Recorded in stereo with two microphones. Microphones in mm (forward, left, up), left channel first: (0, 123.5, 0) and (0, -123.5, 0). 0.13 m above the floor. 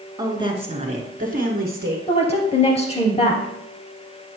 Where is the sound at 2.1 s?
25° left (ahead or behind), 2 m.